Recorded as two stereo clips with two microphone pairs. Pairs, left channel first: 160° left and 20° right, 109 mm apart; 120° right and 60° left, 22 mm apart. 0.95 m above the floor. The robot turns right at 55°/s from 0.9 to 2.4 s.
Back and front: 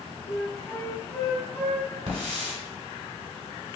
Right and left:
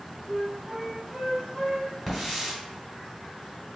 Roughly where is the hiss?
Ahead right.